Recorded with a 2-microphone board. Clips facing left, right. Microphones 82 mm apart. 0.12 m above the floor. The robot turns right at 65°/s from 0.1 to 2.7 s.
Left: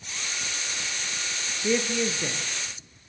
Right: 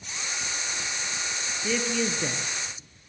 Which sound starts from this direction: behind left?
A man speaking, at 1.6 s.